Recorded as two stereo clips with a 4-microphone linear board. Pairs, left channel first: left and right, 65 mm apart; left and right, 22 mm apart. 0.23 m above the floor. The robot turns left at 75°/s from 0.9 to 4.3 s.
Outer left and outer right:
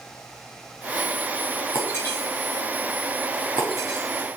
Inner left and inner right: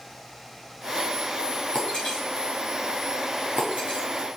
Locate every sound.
1.7 s breaking glass: 55° left (ahead or behind), 3 m; by 4.3 s 45° right (ahead or behind), 3 m